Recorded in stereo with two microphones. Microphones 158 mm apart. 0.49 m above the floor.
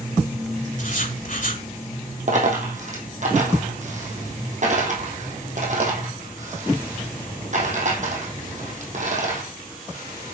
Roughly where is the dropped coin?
Right.